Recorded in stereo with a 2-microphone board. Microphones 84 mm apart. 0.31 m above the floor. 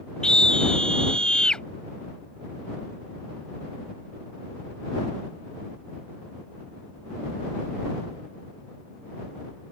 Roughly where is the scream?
Centre.